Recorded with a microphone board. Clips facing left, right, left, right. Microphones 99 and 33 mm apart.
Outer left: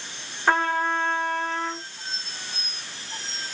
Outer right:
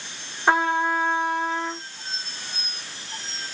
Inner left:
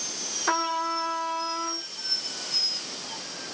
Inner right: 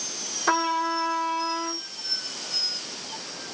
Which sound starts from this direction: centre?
A trumpet, at 0.5 s.